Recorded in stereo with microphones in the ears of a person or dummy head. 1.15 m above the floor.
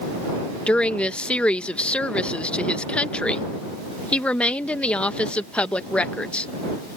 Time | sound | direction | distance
0.7 | a woman speaking | 5° left (ahead or behind) | ?